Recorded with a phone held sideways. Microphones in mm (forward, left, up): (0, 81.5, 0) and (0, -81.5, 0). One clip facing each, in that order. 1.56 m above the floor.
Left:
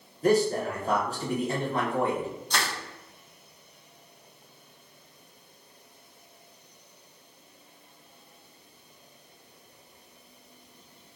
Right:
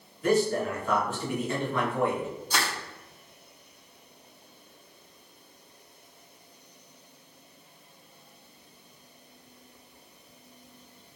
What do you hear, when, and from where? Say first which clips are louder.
0.2 s a man speaking: left 1 dB; 35° left (ahead or behind), 1.0 m
2.5 s crushing: right 1 dB; 5° right (ahead or behind), 1.1 m